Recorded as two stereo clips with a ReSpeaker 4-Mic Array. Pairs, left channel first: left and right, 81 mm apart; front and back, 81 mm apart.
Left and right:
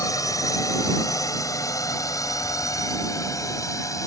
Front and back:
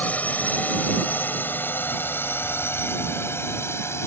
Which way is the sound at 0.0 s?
65° left.